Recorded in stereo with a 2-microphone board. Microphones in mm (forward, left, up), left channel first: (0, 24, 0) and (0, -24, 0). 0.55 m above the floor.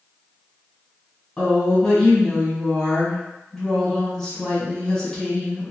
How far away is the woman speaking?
About 1.6 m.